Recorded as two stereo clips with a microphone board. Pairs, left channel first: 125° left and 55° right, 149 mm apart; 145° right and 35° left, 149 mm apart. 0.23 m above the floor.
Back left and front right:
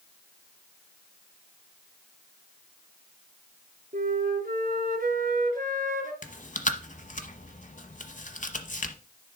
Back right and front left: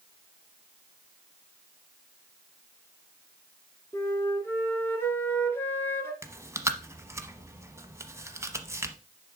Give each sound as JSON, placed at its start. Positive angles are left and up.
{"t": 3.9, "sound": "a flute", "azimuth_deg": -70, "distance_m": 1.8}
{"t": 6.2, "sound": "chewing", "azimuth_deg": 105, "distance_m": 0.9}